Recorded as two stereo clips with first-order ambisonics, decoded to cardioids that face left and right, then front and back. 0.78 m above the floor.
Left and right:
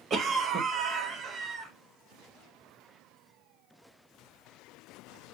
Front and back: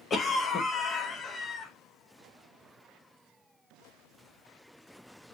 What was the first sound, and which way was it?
A cough, 55° right.